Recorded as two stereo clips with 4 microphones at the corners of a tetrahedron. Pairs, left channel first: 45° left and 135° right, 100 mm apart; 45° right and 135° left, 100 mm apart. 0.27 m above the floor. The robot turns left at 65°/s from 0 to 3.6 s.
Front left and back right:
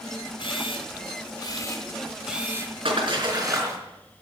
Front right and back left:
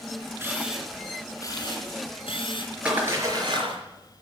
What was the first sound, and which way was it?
A camera shutter, 75° left.